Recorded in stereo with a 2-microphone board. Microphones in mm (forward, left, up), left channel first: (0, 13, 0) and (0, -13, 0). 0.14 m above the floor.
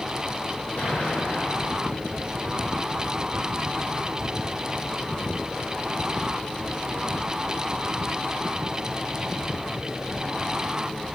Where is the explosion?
85° left, 8.5 m.